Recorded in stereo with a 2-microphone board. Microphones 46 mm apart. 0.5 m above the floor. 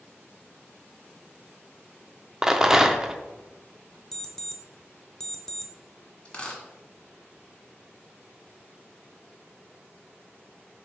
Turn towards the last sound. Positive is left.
turn(degrees=25)  # may be behind; listen again after turning